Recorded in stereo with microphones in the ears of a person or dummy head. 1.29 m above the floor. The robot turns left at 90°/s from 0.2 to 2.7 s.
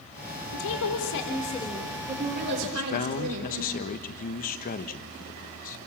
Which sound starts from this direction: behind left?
A woman speaking, at 0.5 s.